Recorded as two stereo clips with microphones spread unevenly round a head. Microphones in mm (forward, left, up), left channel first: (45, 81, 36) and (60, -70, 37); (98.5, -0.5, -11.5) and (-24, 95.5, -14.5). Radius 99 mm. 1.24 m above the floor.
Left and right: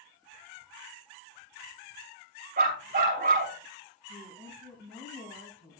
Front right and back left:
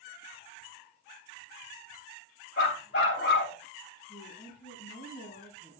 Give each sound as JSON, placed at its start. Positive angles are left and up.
{"t": 2.6, "sound": "a dog barking", "azimuth_deg": -55, "distance_m": 3.0}
{"t": 4.1, "sound": "a woman speaking", "azimuth_deg": 0, "distance_m": 9.0}